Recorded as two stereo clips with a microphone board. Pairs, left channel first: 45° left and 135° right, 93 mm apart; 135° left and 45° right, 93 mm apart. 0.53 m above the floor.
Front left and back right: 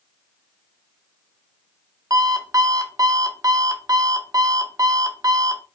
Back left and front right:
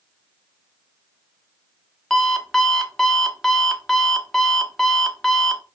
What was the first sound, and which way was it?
An alarm clock, 140° right.